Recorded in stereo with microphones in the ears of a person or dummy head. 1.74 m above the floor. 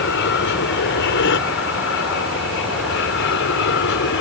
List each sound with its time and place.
0.0 s an aircraft: 60° left (ahead or behind)